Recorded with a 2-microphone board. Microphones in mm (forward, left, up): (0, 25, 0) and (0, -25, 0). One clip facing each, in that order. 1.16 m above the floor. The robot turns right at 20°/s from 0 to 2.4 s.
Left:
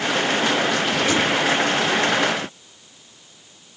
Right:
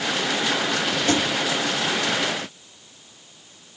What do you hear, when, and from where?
1.1 s a thud: 55° right (ahead or behind), 6 m